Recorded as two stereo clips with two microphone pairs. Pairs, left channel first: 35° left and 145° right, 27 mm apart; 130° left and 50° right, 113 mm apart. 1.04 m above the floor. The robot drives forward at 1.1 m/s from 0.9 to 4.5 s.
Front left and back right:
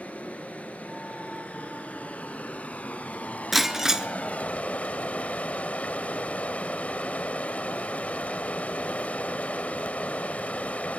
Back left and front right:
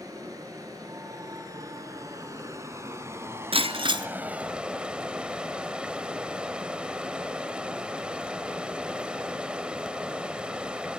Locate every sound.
0.0 s running water: 5° left, 5 m; by 11.0 s 30° left, 1.3 m
3.5 s breaking glass: 60° right, 1.6 m; by 4.1 s 85° right, 1.4 m